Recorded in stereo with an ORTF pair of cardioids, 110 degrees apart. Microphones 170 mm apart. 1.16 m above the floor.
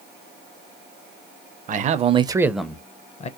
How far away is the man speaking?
About 0.7 m.